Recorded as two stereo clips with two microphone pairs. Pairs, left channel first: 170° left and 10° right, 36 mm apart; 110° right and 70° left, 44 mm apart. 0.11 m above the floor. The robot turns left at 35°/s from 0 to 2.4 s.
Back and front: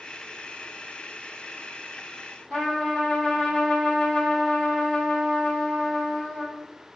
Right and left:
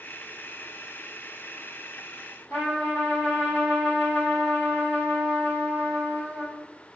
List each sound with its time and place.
2.5 s a trumpet: 120° right, 1.8 m